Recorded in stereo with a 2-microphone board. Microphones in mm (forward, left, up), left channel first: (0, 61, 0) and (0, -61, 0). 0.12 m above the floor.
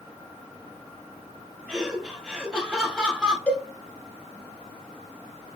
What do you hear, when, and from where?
1.7 s laughter: 5° right (ahead or behind), 2.5 m
3.5 s a cowbell: 10° left (ahead or behind), 1.3 m